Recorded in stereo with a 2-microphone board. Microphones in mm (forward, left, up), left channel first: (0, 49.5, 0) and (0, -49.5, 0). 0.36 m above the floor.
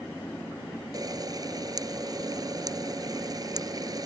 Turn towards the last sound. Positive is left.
turn(degrees=-40)  # may be behind; listen again after turning